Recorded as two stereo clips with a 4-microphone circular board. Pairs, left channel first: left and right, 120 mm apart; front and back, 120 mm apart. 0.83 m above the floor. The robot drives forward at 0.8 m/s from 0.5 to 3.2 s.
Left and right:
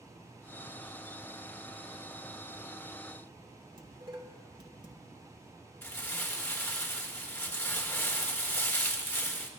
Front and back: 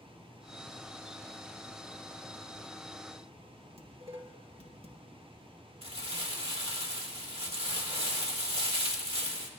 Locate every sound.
3.8 s dishes clattering: 145° right, 1.6 m
5.8 s crumpling: 160° left, 1.7 m